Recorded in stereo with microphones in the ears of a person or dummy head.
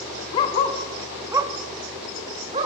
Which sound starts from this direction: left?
A dog barking, at 0.3 s.